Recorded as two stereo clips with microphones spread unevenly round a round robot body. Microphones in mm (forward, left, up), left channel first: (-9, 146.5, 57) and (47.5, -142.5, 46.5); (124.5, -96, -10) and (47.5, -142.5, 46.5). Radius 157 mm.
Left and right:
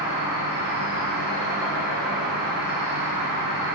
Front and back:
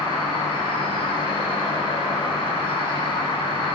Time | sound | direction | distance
0.0 | an insect | 25° right | 1.1 m